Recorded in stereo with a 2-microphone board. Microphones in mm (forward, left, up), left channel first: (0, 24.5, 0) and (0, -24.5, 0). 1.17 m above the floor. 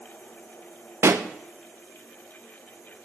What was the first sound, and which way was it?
A pop, 60° right (ahead or behind).